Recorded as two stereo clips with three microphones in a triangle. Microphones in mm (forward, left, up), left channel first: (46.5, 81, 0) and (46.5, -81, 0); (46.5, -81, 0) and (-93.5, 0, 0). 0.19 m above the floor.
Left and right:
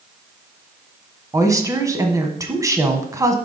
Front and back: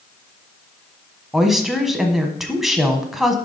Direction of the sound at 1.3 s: 125° right.